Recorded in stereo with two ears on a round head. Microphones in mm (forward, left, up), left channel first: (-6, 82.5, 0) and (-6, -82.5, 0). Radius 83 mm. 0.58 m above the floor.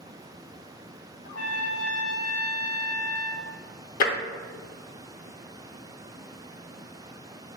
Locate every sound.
1.2 s a trumpet: 75° left (ahead or behind), 0.8 m
4.0 s tapping: 55° left (ahead or behind), 0.6 m